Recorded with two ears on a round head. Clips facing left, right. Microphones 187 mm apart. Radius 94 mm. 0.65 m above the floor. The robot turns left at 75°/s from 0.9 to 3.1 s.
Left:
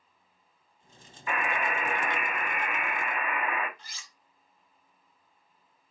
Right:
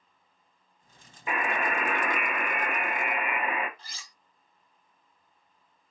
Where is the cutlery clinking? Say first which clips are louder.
Right 2 dB; 30° right (ahead or behind), 0.6 m.